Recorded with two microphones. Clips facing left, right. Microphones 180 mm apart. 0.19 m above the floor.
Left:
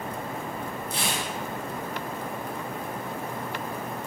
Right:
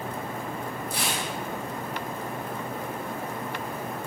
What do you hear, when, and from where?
0.9 s tearing paper: 25° left (ahead or behind), 1.6 m